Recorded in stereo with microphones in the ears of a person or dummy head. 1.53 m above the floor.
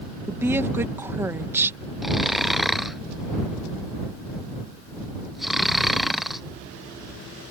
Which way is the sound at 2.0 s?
Centre (ahead or behind).